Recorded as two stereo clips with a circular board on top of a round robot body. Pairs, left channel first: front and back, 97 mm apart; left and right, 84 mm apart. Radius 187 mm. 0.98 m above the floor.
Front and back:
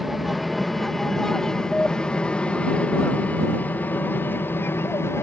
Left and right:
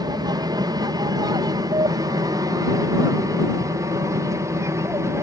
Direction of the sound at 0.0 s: 90° right.